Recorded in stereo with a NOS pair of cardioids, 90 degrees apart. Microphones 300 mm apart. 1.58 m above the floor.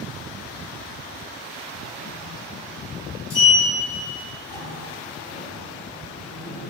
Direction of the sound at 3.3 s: 50° left.